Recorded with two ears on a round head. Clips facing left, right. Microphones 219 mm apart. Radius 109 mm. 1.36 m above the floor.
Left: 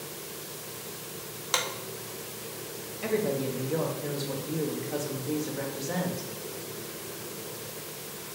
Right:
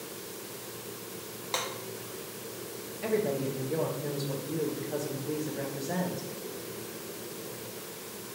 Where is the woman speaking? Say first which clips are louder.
Left 1 dB; centre (ahead or behind), 0.6 m.